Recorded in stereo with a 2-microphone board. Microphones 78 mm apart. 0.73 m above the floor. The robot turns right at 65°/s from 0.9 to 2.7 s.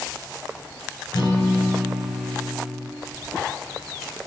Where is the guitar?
95° left, 1.6 m; by 2.9 s 165° right, 1.6 m.